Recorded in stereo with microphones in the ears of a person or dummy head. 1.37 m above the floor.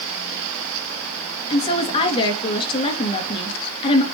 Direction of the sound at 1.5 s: 35° left (ahead or behind).